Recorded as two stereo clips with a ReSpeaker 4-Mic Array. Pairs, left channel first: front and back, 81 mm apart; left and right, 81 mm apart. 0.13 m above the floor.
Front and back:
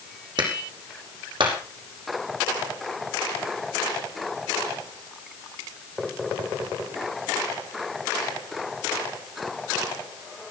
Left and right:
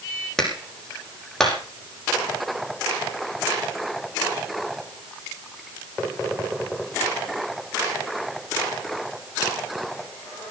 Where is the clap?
175° left, 5.5 m.